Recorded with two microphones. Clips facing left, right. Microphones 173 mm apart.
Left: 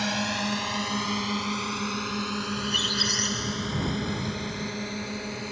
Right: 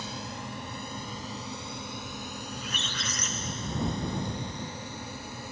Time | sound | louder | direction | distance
0.0 | a drone | left 9 dB | 70° left (ahead or behind) | ?
2.5 | a squeak | left 7 dB | 35° left (ahead or behind) | ?